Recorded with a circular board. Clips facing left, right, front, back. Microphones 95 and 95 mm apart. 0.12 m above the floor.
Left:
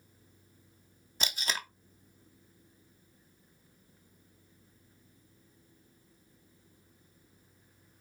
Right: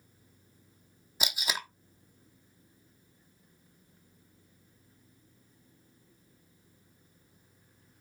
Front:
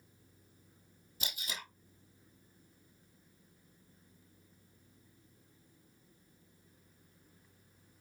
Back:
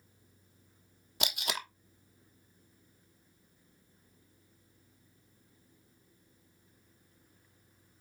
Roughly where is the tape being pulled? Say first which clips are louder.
Right 1 dB, back 8 dB; behind.